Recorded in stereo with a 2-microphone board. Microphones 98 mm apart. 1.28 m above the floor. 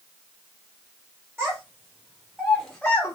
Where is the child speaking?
25° right (ahead or behind), 1.5 m; by 3.1 s 30° left (ahead or behind), 0.6 m.